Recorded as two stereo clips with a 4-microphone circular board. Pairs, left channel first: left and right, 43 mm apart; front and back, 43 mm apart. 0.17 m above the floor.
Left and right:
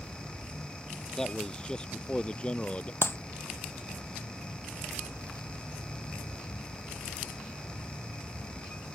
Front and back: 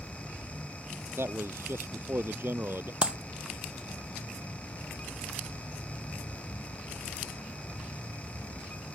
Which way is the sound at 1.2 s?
165° left.